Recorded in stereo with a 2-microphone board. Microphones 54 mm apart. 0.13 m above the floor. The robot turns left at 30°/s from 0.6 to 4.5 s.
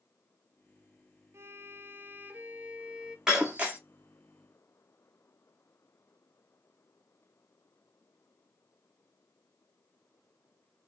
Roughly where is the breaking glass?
Centre.